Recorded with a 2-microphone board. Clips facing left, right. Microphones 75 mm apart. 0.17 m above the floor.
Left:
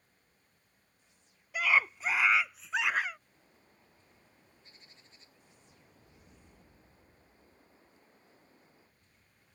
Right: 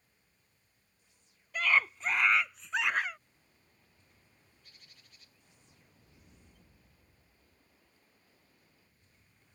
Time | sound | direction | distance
1.5 | a scream | 10° left (ahead or behind) | ?
3.3 | a bird | 25° left (ahead or behind) | ?